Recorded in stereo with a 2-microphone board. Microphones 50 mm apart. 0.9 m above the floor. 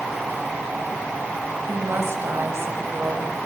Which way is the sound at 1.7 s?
60° right (ahead or behind).